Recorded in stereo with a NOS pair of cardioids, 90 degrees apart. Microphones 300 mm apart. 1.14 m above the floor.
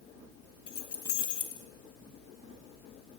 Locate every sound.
0.7 s keys jangling: 50° left, 0.9 m